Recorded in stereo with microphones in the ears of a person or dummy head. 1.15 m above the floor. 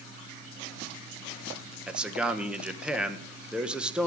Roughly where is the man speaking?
Centre.